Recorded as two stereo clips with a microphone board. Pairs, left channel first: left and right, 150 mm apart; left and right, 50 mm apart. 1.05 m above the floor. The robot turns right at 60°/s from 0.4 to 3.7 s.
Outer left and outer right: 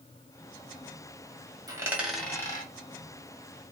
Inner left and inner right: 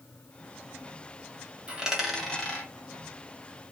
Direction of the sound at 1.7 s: 25° right (ahead or behind).